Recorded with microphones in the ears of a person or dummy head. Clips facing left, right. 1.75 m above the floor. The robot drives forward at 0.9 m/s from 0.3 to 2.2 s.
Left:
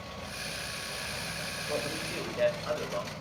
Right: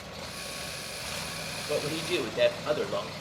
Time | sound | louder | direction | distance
1.7 | a man speaking | right 6 dB | 35° right (ahead or behind) | 1.5 m